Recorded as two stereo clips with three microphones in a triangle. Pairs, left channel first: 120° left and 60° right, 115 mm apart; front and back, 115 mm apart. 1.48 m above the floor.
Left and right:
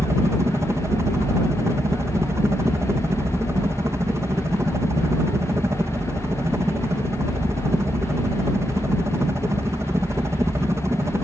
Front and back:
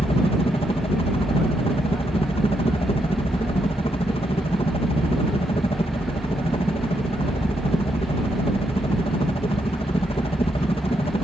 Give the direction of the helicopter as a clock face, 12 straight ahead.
12 o'clock.